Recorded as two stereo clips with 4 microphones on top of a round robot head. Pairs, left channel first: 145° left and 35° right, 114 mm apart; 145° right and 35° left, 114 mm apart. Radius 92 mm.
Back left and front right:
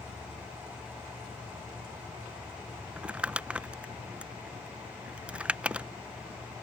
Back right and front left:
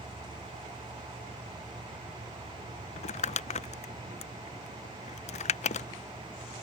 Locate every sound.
3.0 s crumpling: 115° right